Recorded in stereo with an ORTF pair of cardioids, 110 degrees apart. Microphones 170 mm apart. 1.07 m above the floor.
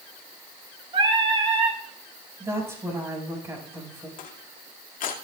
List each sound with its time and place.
0.9 s singing: 30° right, 2.5 m
2.4 s a woman speaking: 15° right, 6 m
4.2 s crushing: 55° left, 2.5 m